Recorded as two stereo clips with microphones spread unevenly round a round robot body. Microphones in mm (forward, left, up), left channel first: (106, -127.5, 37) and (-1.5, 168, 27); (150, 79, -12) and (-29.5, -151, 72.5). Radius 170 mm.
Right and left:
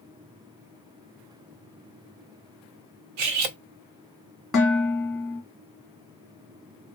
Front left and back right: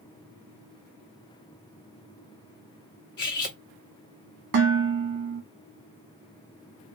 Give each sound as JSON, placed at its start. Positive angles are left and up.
{"t": 3.2, "sound": "cutlery clinking", "azimuth_deg": 120, "distance_m": 0.6}
{"t": 4.5, "sound": "dishes clattering", "azimuth_deg": -160, "distance_m": 1.3}